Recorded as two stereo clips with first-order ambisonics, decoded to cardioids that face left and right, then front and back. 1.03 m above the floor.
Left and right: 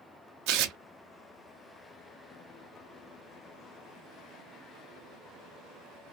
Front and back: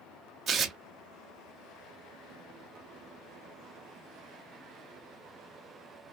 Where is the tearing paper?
115° right, 0.6 m.